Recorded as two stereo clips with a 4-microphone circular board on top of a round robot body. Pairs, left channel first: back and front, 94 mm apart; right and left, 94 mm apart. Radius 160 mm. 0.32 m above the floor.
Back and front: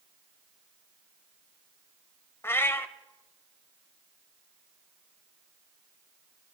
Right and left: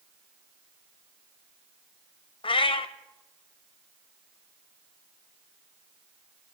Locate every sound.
2.4 s a cat meowing: 115° right, 0.7 m